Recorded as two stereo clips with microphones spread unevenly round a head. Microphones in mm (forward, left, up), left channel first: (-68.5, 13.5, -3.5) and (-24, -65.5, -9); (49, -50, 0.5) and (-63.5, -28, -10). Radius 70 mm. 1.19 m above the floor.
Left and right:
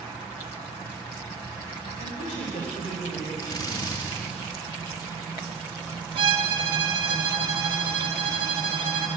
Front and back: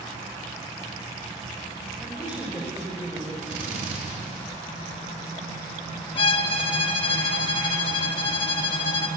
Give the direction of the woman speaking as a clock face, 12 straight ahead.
9 o'clock.